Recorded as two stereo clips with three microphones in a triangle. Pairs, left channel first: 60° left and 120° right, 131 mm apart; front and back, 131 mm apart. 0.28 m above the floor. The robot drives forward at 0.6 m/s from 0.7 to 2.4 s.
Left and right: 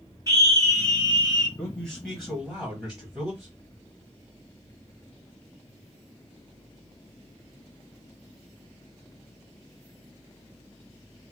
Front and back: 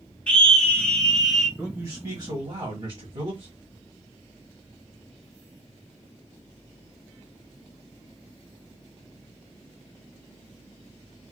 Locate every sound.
0.3 s a scream: 75° right, 1.8 m; by 1.5 s 95° right, 1.8 m
1.6 s a man speaking: 130° left, 0.9 m; by 3.5 s 155° left, 1.2 m